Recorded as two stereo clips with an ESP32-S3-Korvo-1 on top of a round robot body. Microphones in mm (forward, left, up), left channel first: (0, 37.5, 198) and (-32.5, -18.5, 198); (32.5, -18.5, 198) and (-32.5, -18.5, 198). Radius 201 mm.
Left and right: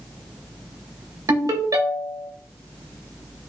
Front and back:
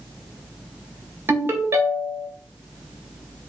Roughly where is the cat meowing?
I don't hear a cat meowing.